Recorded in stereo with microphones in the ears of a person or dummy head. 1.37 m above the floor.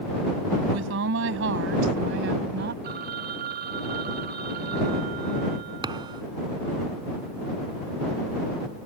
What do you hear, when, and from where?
0.7 s a woman speaking: 80° right; by 2.7 s 65° right (ahead or behind)
2.8 s a phone ringing: 50° right (ahead or behind)
5.8 s a thud: 25° right (ahead or behind)